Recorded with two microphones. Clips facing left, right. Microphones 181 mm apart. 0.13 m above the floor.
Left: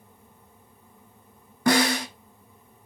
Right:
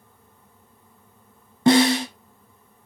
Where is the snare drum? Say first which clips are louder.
Right 6 dB; 25° right (ahead or behind), 0.9 m.